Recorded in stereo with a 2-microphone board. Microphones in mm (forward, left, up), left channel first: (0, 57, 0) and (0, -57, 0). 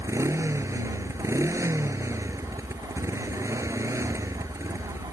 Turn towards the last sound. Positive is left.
turn(degrees=-25)  # may be behind; listen again after turning